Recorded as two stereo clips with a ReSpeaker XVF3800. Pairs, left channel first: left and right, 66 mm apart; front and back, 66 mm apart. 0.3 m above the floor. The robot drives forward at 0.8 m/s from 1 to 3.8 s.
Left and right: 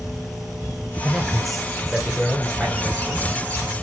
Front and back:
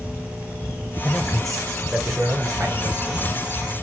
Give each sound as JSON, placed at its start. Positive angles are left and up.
{"t": 1.0, "sound": "a man speaking", "azimuth_deg": 5, "distance_m": 1.0}